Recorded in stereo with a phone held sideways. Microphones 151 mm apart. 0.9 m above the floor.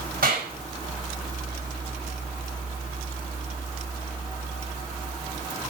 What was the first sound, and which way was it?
A clap, 70° right (ahead or behind).